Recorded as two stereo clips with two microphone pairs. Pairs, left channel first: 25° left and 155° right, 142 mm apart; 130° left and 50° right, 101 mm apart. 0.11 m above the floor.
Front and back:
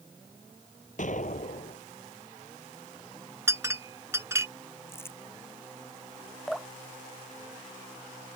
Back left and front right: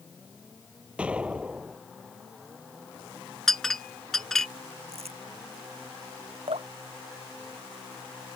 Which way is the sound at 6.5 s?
60° right.